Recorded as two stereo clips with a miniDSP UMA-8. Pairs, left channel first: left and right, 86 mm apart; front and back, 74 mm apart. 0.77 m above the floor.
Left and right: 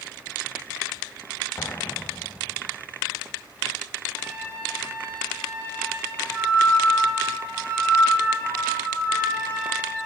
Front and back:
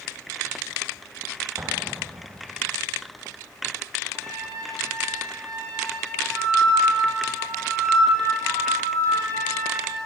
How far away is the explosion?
About 0.6 m.